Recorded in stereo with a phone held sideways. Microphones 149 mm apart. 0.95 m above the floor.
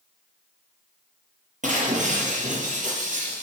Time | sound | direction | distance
1.6 | breaking glass | 55° right (ahead or behind) | 5 m